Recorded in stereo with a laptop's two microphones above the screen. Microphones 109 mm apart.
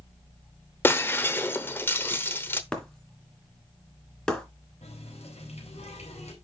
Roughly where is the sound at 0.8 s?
Left.